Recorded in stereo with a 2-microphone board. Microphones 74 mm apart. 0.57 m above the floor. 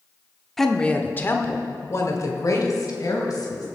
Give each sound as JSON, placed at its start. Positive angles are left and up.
{"t": 0.6, "sound": "a woman speaking", "side_deg": 5, "distance_m": 0.9}